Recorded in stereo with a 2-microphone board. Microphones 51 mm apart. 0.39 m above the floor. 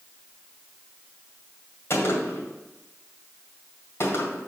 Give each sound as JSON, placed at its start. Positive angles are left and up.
{"t": 1.9, "sound": "a gunshot", "side_deg": 55, "distance_m": 2.0}